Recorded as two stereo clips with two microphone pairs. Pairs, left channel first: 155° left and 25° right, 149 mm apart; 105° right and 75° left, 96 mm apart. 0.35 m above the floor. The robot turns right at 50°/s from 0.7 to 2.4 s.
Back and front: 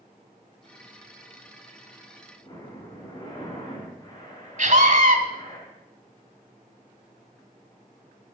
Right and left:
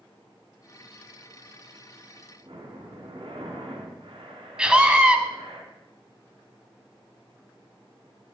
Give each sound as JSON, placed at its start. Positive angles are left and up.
{"t": 2.4, "sound": "breathing", "azimuth_deg": 90, "distance_m": 4.0}
{"t": 4.6, "sound": "a scream", "azimuth_deg": -5, "distance_m": 2.0}